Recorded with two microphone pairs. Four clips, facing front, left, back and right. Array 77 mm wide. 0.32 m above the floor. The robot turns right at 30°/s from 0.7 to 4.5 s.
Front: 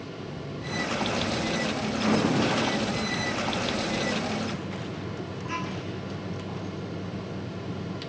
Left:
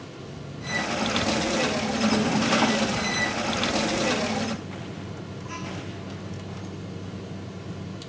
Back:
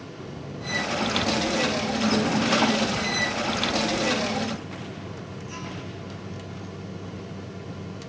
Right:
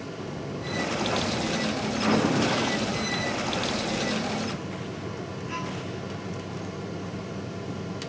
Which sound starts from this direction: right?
A buzzer, at 0.2 s.